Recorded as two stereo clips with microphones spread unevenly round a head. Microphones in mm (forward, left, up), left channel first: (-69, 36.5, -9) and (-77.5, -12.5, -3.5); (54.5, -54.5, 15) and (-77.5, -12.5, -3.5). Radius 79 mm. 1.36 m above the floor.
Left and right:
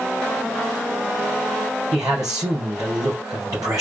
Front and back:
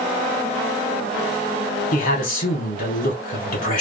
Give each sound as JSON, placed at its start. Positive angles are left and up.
{"t": 1.9, "sound": "a man speaking", "azimuth_deg": -40, "distance_m": 2.0}